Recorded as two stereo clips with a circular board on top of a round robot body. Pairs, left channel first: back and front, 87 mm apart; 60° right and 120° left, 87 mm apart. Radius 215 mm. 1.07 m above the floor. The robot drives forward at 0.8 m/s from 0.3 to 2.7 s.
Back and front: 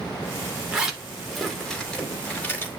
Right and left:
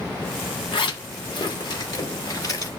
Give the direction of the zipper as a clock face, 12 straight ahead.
3 o'clock.